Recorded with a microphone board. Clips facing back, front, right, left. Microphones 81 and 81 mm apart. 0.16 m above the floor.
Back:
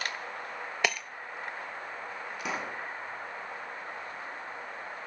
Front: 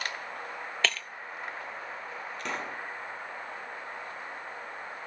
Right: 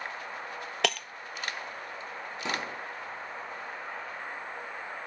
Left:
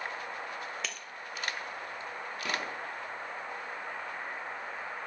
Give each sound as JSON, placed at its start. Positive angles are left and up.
{"t": 0.8, "sound": "breaking glass", "azimuth_deg": -105, "distance_m": 0.6}
{"t": 2.4, "sound": "a pop", "azimuth_deg": -110, "distance_m": 1.7}